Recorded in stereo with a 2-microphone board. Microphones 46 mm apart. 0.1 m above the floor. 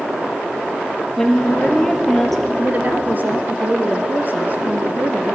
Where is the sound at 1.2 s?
5° left (ahead or behind), 2.5 m.